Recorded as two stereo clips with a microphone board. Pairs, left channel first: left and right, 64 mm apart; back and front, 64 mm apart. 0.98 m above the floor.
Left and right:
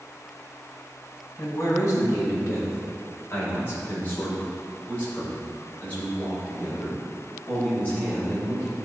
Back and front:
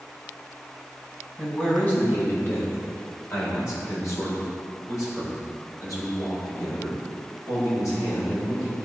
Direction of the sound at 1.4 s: 110° left.